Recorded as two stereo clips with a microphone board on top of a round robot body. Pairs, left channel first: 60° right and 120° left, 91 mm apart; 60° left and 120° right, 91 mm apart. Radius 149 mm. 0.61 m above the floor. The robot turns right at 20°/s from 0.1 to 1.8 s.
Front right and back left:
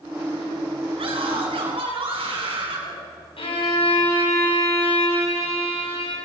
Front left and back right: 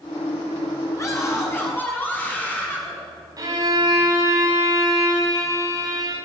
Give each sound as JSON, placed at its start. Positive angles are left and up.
{"t": 1.0, "sound": "a scream", "azimuth_deg": 115, "distance_m": 8.0}
{"t": 3.4, "sound": "a violin", "azimuth_deg": -70, "distance_m": 6.5}